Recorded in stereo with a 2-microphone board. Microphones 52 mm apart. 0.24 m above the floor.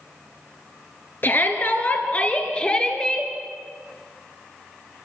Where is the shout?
40° left (ahead or behind), 3.5 m; by 3.3 s 15° left (ahead or behind), 3.5 m.